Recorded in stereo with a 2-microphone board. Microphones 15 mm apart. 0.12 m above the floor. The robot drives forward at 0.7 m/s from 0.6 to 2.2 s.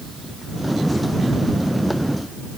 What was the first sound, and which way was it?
Only background noise.